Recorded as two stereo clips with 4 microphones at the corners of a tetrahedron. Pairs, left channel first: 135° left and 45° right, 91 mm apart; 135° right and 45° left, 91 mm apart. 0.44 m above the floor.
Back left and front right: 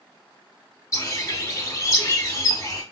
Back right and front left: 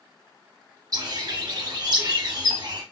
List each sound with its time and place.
0.9 s a bird: 80° left, 0.6 m